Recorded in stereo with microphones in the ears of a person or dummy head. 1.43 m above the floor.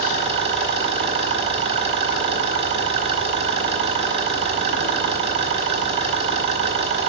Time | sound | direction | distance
0.0 | an engine running | 30° right (ahead or behind) | 1.4 m